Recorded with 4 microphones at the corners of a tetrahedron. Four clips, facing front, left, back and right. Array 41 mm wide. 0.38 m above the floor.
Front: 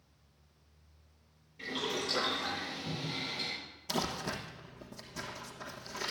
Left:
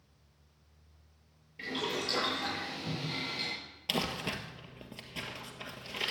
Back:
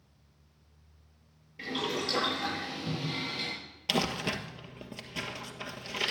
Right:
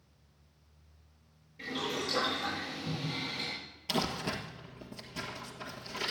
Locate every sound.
1.6 s boiling: 145° left, 9 m
3.9 s crumpling: 160° left, 1.6 m